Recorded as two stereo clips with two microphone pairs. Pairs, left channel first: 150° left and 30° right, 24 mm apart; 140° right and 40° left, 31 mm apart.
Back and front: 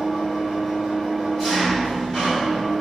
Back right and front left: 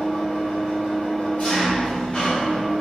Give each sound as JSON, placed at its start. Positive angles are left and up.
{"t": 0.0, "sound": "an engine running", "azimuth_deg": -150, "distance_m": 1.5}